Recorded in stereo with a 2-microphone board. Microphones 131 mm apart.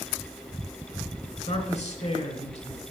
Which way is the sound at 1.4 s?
55° left (ahead or behind).